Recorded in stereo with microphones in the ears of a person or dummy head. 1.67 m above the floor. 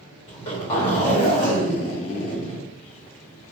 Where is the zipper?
30° left (ahead or behind), 1.7 m.